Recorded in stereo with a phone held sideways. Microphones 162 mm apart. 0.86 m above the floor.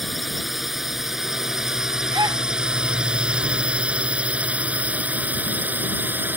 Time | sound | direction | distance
0.0 | a drone | centre (ahead or behind) | ?
2.1 | a gasp | 25° right (ahead or behind) | ?